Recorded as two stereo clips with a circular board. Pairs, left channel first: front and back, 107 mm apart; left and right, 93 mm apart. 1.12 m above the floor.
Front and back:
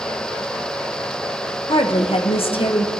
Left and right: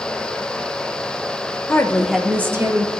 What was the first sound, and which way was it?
A woman speaking, 30° left.